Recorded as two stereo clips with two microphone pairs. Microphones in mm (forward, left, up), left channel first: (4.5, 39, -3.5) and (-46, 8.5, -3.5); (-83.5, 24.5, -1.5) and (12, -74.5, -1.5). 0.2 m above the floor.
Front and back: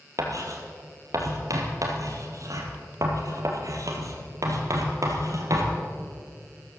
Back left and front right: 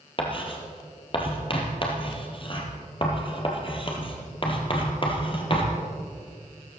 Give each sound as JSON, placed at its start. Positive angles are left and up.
{"t": 0.2, "sound": "writing", "azimuth_deg": -175, "distance_m": 2.5}